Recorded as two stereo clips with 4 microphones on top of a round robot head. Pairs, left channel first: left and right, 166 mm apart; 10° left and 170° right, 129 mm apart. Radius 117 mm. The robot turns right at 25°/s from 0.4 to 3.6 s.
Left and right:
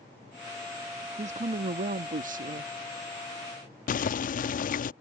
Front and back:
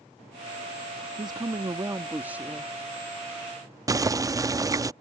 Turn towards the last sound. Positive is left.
turn(degrees=125)